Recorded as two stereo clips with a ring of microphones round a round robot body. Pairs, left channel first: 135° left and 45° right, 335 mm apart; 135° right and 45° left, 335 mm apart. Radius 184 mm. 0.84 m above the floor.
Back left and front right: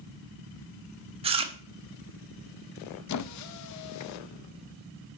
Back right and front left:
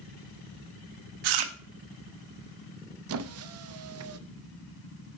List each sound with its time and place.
1.2 s chewing: 30° left, 1.1 m
3.1 s a squeak: 95° left, 0.6 m